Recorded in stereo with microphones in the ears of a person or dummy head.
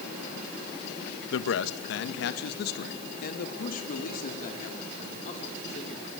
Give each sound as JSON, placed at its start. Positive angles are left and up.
{"t": 1.3, "sound": "a man speaking", "side_deg": 80, "distance_m": 1.5}